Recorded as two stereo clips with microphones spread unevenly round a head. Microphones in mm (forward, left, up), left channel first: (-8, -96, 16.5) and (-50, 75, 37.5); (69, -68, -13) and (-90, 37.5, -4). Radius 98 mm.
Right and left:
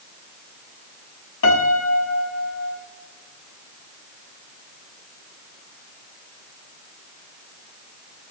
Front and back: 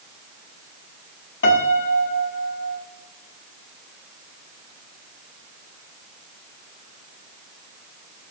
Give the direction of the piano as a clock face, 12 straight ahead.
2 o'clock.